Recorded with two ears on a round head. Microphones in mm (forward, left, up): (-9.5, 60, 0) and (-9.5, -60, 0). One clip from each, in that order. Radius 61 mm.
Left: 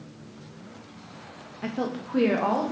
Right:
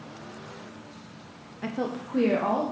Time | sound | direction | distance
1.6 | a woman speaking | 5° right (ahead or behind) | 0.8 m